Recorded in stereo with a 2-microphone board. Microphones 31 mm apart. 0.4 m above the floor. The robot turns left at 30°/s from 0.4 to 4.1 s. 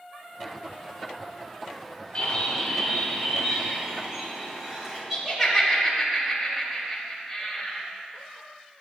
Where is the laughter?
10° right (ahead or behind), 1.8 m.